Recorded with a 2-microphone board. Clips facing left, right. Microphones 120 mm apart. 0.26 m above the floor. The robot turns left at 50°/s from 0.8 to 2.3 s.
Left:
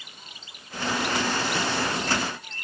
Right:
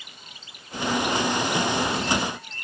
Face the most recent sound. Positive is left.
No sound to turn to.